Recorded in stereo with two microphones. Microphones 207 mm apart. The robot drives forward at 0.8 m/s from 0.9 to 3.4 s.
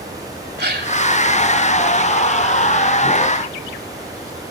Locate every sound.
0.6 s a gasp: 55° right (ahead or behind), 2 m